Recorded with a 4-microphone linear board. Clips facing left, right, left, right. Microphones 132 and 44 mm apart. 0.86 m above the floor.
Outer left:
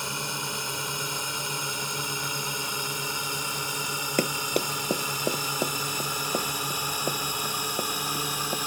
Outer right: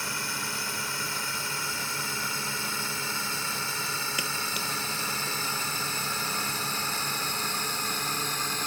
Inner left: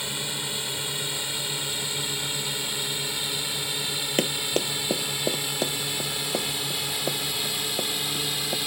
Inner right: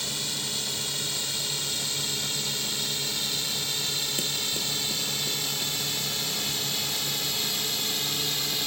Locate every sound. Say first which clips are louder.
0.0 s a drone: outer left 2 dB, inner left 2 dB; 20° left (ahead or behind); by 8.7 s 10° left (ahead or behind)
4.2 s running footsteps: outer left 8 dB, inner left 5 dB; 50° left (ahead or behind); by 8.6 s 75° left (ahead or behind)